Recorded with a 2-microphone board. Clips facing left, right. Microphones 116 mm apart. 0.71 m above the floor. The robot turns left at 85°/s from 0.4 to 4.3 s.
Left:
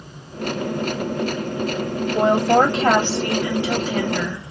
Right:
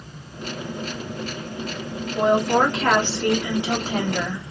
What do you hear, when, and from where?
2.1 s a woman speaking: 95° left, 1.8 m; by 4.5 s 90° right, 1.8 m